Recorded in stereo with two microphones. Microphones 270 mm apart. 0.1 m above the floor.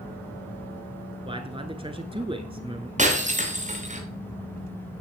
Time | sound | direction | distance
1.2 | a man speaking | 20° right (ahead or behind) | 1.1 m
3.0 | breaking glass | 25° right (ahead or behind) | 4 m